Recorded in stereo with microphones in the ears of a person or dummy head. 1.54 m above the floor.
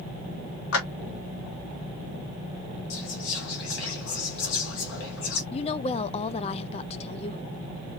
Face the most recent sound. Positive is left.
turn(degrees=35)  # may be behind; listen again after turning